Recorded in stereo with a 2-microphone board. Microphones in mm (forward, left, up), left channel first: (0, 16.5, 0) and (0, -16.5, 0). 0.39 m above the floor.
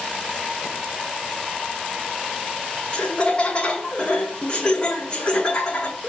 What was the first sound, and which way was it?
Laughter, 30° left (ahead or behind).